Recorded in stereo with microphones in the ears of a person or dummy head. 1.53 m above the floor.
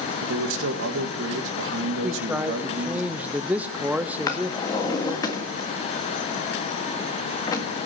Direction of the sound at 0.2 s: 80° right.